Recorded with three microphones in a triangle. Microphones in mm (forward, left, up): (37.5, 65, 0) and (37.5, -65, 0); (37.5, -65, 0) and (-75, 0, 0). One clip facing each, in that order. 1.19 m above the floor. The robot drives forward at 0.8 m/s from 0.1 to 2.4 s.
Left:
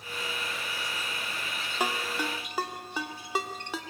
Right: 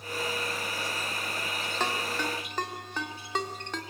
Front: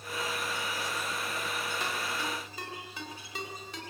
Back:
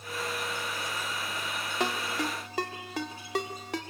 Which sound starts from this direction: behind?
A ringtone, at 1.8 s.